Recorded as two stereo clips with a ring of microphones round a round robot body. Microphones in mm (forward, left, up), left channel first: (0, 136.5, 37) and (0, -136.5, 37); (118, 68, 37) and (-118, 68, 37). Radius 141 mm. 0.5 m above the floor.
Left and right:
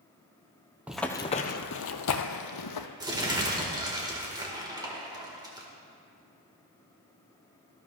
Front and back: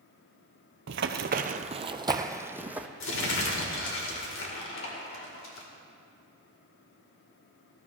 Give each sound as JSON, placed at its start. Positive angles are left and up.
{"t": 0.9, "sound": "running footsteps", "azimuth_deg": -175, "distance_m": 0.6}
{"t": 3.0, "sound": "crumpling", "azimuth_deg": -15, "distance_m": 2.0}